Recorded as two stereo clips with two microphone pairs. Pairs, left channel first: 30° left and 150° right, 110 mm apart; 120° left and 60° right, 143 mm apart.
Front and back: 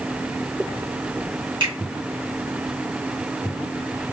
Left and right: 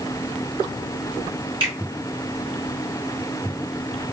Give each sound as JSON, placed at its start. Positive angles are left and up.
{"t": 1.6, "sound": "a finger snap", "azimuth_deg": -110, "distance_m": 1.9}